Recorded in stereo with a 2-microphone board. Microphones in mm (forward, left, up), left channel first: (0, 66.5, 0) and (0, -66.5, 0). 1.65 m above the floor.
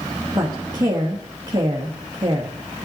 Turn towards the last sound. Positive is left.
turn(degrees=-30)  # may be behind; listen again after turning